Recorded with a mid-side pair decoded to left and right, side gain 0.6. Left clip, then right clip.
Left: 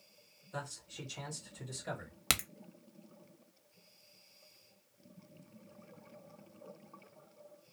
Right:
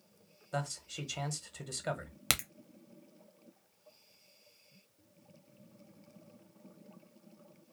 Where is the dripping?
No dripping in this recording.